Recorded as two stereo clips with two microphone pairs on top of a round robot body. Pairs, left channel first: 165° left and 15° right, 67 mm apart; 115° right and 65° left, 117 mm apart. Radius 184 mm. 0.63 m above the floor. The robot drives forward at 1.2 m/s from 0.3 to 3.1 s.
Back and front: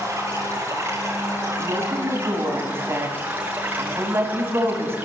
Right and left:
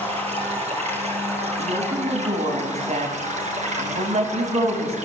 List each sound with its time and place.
0.0 s running water: 35° left, 8.5 m; by 5.1 s 50° left, 6 m
1.6 s a woman speaking: 30° left, 7.5 m; by 5.0 s 40° left, 6 m